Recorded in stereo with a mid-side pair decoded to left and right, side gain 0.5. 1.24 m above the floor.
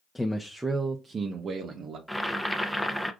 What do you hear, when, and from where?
0.1 s a man speaking: 10° left, 0.7 m; by 2.0 s 65° right, 1.0 m
2.1 s boiling: straight ahead, 0.7 m